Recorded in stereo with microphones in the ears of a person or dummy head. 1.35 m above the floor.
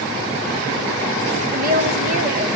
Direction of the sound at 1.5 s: 45° right (ahead or behind).